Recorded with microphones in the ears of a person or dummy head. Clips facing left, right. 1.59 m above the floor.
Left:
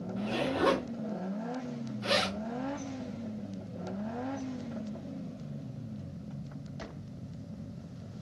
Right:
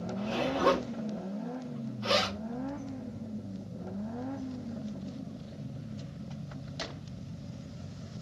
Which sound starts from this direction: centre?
A zipper, at 0.2 s.